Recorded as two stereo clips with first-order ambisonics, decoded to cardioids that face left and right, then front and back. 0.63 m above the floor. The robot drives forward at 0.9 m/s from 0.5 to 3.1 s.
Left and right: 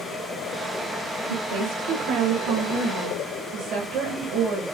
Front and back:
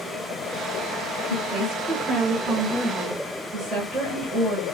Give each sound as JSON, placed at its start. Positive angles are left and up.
{"t": 1.3, "sound": "a woman speaking", "azimuth_deg": -75, "distance_m": 2.0}